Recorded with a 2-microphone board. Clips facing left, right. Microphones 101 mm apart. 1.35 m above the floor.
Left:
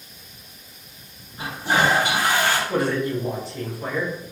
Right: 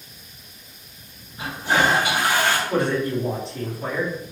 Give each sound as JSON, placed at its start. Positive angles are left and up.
{"t": 1.4, "sound": "a toilet flushing", "side_deg": 35, "distance_m": 2.0}
{"t": 2.7, "sound": "a man speaking", "side_deg": 5, "distance_m": 1.5}